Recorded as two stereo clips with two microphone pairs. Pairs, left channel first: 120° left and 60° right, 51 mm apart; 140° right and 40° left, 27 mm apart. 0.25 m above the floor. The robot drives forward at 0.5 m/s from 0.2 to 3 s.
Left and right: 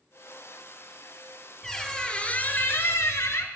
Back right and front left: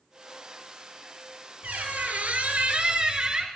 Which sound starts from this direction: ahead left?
A squeak, at 1.6 s.